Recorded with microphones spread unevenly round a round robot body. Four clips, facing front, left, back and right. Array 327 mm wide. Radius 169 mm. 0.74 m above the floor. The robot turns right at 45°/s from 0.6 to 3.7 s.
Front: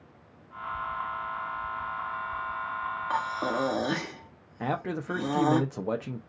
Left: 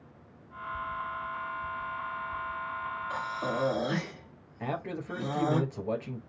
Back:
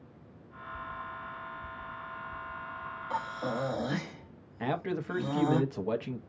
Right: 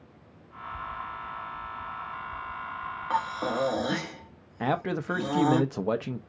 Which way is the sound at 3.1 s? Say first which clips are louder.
Right 6 dB, front 3 dB; 40° right.